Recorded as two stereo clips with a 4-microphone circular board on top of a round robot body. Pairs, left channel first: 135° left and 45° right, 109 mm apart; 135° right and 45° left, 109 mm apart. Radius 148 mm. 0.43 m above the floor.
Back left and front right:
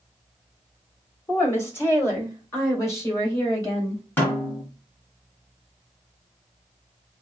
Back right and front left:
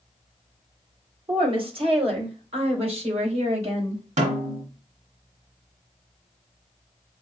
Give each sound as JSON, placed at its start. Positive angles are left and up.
{"t": 1.3, "sound": "a woman speaking", "azimuth_deg": 70, "distance_m": 2.0}
{"t": 4.2, "sound": "a snare drum", "azimuth_deg": 60, "distance_m": 1.5}